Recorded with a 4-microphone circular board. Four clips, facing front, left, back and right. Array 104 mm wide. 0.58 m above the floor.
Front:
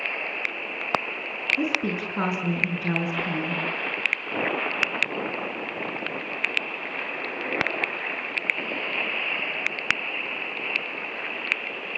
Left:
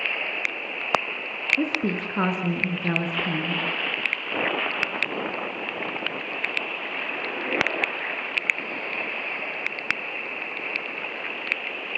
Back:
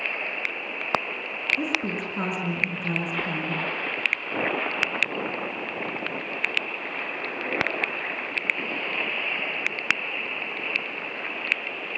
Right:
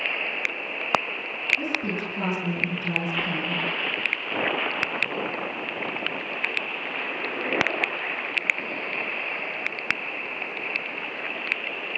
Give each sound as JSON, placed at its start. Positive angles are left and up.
{"t": 1.6, "sound": "a woman speaking", "azimuth_deg": 75, "distance_m": 7.0}